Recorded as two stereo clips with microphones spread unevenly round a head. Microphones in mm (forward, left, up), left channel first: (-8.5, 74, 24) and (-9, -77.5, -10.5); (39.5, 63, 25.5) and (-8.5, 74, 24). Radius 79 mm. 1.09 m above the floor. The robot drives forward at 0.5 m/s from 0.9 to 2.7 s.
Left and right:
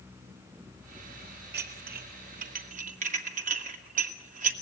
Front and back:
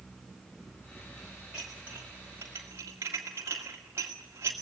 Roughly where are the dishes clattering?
Right.